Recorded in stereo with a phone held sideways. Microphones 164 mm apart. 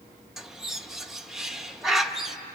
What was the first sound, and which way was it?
A bird, 5° right (ahead or behind).